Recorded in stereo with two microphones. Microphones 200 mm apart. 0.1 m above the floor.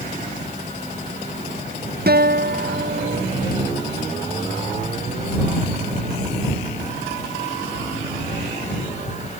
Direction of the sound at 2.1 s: 55° right (ahead or behind).